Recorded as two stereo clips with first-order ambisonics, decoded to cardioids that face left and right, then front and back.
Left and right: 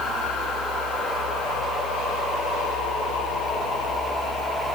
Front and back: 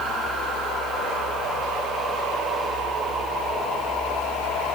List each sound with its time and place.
Only background noise.